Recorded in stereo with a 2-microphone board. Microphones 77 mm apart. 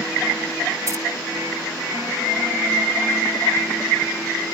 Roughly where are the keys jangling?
Right.